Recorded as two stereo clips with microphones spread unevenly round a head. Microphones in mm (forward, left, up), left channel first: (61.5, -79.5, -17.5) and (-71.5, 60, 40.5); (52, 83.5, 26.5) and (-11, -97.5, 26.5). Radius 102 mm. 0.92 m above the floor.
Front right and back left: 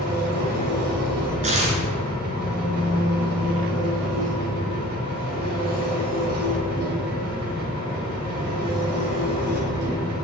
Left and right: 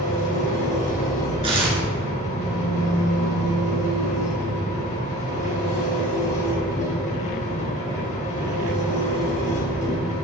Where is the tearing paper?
175° right, 3.5 m.